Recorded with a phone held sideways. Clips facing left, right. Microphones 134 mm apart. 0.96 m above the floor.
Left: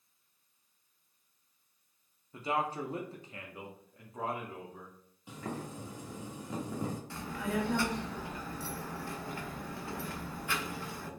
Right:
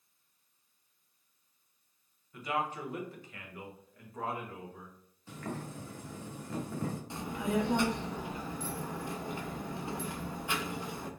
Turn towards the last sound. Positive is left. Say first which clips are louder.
# right 5 dB
turn(degrees=-20)  # may be behind; listen again after turning